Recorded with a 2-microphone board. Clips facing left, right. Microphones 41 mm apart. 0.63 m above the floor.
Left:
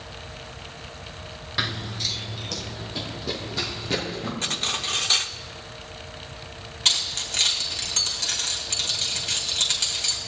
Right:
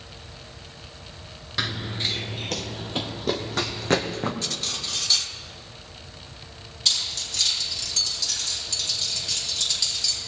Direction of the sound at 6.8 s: 50° left (ahead or behind).